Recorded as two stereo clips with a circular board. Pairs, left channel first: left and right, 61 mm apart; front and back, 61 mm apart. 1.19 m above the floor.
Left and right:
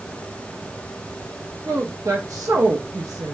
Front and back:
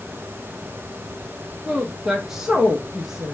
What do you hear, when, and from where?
1.6 s a woman speaking: 100° right, 0.7 m